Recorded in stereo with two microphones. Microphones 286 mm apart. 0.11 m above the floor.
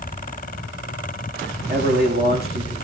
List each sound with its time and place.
1.7 s a man speaking: 35° right (ahead or behind), 5.5 m